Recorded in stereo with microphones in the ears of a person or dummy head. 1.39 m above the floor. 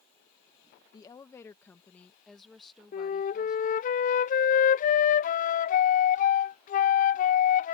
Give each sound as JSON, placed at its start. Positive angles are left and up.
{"t": 0.9, "sound": "a woman speaking", "side_deg": 30}
{"t": 2.9, "sound": "a flute", "side_deg": 45}